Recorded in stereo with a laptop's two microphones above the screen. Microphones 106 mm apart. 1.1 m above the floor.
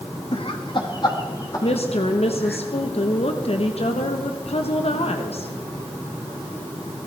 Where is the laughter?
60° left (ahead or behind), 1.2 m; by 2.6 s 25° left (ahead or behind), 2.5 m.